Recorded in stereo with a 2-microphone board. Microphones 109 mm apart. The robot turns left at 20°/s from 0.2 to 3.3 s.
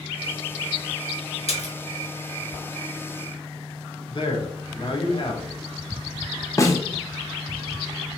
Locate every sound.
1.5 s a splash: 65° left (ahead or behind), 1.0 m; by 1.7 s 70° left (ahead or behind), 1.0 m
4.1 s a man speaking: 50° left (ahead or behind), 1.0 m
6.6 s a snare drum: 30° left (ahead or behind), 0.7 m